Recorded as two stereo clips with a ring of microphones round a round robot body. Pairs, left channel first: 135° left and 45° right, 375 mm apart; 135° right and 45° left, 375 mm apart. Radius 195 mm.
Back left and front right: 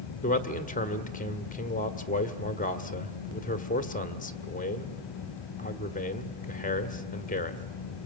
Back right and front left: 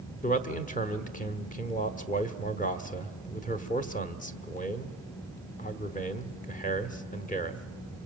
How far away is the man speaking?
About 1.3 m.